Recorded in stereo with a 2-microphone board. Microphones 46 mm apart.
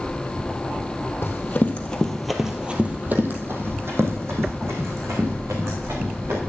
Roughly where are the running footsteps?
Left.